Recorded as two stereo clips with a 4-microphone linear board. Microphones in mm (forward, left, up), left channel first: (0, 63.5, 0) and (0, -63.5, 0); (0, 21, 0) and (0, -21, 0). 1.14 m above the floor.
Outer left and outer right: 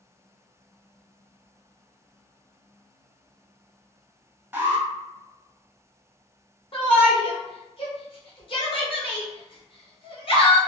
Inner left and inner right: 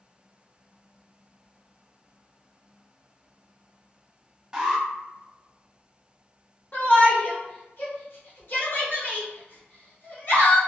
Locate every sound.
4.5 s an alarm: 15° right (ahead or behind), 0.7 m
6.7 s a shout: 45° left (ahead or behind), 0.9 m